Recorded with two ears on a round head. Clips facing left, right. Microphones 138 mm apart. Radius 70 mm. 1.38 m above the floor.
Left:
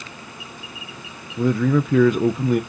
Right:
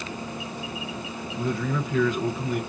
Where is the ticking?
I don't hear ticking.